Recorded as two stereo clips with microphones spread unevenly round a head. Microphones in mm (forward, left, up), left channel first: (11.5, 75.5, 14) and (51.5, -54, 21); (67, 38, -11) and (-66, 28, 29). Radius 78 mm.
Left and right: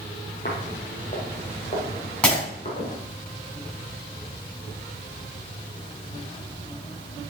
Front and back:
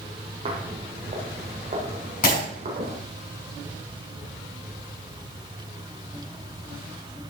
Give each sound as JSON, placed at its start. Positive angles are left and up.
{"t": 0.5, "sound": "footsteps", "azimuth_deg": 155, "distance_m": 2.5}
{"t": 2.2, "sound": "breaking glass", "azimuth_deg": 25, "distance_m": 5.5}